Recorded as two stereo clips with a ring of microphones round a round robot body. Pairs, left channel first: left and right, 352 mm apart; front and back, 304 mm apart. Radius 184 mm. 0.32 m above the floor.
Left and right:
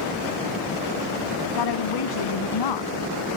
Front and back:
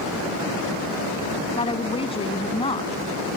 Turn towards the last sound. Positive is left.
turn(degrees=70)